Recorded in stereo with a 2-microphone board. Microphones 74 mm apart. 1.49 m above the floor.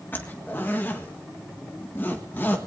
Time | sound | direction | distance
0.1 | a zipper | 30° left (ahead or behind) | 1.5 m